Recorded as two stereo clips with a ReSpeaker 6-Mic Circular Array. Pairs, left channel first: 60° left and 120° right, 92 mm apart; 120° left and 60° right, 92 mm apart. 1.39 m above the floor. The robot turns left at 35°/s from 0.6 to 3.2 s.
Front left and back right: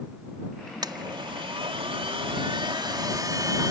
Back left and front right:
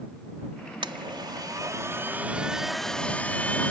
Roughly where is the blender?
Right.